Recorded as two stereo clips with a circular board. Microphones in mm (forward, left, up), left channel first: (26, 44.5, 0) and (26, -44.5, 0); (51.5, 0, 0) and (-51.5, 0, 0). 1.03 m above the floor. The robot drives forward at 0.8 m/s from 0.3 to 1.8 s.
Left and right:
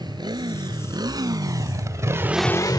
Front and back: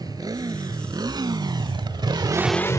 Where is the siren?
No siren in this recording.